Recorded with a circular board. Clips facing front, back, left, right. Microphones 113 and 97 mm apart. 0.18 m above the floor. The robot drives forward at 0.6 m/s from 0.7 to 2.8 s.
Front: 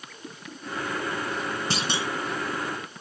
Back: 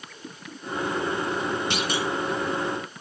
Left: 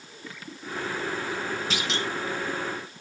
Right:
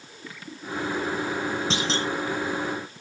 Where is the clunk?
40° right, 1.1 m; by 2.1 s 55° right, 1.0 m.